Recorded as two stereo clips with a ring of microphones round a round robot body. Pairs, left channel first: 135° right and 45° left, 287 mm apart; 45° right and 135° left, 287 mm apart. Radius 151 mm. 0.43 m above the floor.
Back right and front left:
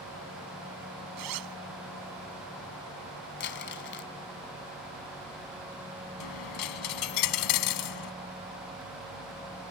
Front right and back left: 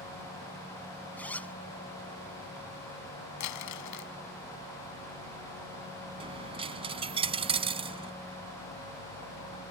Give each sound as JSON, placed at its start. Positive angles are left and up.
{"t": 1.2, "sound": "a zipper", "azimuth_deg": 40}
{"t": 3.4, "sound": "crumpling", "azimuth_deg": -80}
{"t": 6.2, "sound": "a dropped coin", "azimuth_deg": -155}